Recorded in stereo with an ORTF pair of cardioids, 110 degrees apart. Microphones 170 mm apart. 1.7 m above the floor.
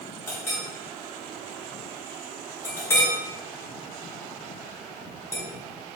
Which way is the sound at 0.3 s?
15° left.